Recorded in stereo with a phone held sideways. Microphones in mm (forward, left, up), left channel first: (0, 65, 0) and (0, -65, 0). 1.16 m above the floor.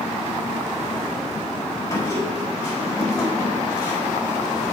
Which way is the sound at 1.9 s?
25° left (ahead or behind).